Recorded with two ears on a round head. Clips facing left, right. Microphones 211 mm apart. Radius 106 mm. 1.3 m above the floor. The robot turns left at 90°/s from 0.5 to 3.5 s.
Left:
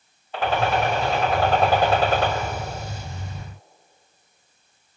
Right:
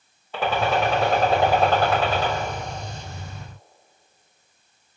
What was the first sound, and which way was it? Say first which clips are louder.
A gunshot: even; 80° right.